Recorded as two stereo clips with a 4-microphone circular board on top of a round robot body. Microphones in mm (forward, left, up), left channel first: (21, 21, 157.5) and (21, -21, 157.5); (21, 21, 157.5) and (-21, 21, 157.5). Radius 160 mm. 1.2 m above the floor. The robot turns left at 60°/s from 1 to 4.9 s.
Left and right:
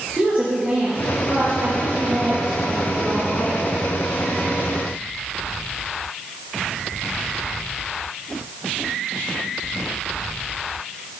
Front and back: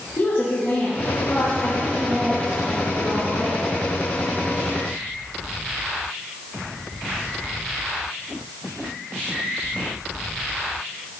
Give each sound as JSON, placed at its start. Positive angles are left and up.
{"t": 0.2, "sound": "a woman speaking", "azimuth_deg": -45, "distance_m": 2.0}